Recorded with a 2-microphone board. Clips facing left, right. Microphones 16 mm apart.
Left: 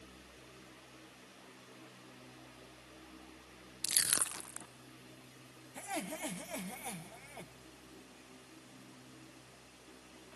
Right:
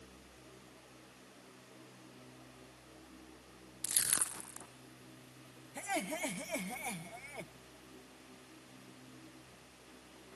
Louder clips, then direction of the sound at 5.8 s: Right 3 dB; 35° right (ahead or behind).